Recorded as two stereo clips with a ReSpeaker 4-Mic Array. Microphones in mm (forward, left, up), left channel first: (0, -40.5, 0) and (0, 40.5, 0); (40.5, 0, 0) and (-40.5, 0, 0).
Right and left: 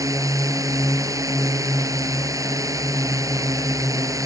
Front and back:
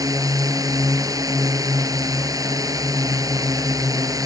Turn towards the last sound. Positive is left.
turn(degrees=135)